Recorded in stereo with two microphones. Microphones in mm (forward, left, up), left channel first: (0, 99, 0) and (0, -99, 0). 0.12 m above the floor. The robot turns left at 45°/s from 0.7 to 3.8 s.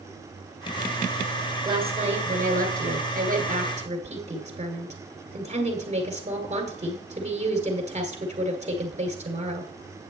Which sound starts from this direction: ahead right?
A woman speaking, at 1.6 s.